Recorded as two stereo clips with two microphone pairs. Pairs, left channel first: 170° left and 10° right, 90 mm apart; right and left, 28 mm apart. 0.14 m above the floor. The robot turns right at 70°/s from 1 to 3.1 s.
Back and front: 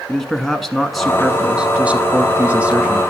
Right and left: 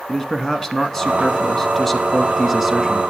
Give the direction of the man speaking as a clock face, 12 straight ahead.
3 o'clock.